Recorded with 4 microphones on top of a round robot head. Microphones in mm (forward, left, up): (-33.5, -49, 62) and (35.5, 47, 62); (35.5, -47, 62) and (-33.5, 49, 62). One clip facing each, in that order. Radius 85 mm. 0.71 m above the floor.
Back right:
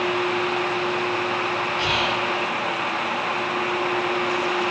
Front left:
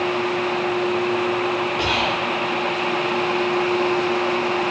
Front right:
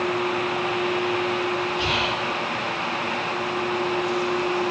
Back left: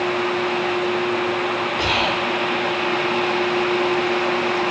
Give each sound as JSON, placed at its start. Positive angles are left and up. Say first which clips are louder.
{"t": 1.8, "sound": "whispering", "louder": "front left 2 dB, back left 4 dB", "azimuth_deg": 95, "distance_m": 2.0}